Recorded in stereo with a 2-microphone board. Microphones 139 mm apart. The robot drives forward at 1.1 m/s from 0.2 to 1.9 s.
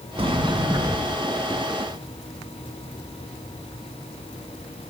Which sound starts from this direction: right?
A sliding door, at 0.2 s.